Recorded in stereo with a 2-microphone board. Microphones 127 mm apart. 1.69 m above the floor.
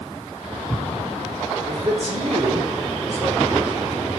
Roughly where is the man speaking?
Right.